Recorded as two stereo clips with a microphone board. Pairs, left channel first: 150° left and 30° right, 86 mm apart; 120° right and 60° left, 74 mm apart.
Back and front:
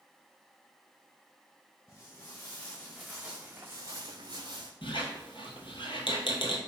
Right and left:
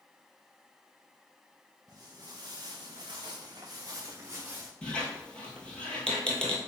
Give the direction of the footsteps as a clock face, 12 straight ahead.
9 o'clock.